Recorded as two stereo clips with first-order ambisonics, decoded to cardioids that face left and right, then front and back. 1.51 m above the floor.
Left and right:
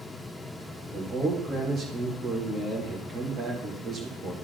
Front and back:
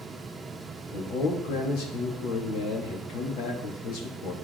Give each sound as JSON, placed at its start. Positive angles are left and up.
{"t": 0.9, "sound": "a man speaking", "azimuth_deg": -25, "distance_m": 2.5}